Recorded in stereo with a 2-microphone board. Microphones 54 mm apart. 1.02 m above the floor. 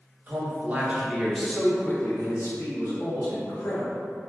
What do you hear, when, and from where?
0.3 s a man speaking: 35° right (ahead or behind), 0.9 m; by 3.9 s 85° left, 1.2 m